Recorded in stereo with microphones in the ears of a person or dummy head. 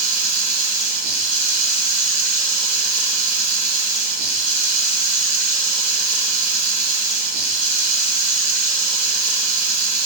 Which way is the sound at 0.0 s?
50° right (ahead or behind).